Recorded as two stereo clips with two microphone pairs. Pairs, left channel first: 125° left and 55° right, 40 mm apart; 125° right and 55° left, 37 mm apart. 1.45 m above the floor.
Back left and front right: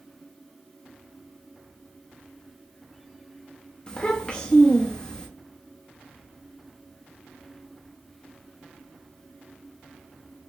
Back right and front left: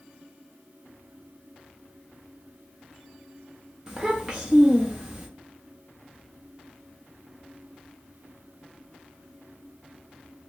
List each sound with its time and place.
3.9 s a child speaking: 100° left, 0.8 m